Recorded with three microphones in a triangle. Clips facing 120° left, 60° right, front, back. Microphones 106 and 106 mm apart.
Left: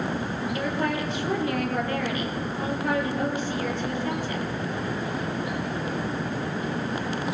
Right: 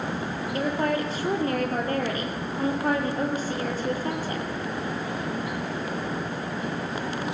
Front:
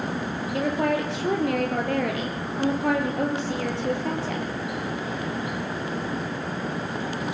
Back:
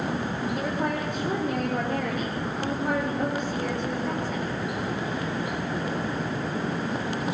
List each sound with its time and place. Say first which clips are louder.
0.5 s a woman speaking: right 3 dB, front 7 dB; 10° right, 5.5 m